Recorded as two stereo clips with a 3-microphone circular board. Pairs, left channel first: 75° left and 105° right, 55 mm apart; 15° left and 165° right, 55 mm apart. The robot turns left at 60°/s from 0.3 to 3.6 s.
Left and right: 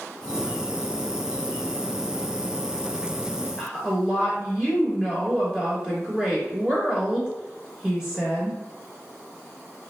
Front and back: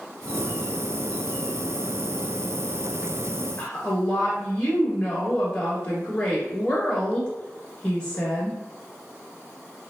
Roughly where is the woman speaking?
Ahead right.